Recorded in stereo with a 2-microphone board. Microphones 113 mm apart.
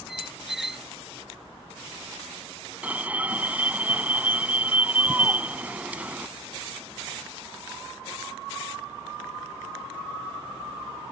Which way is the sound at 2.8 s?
15° right (ahead or behind).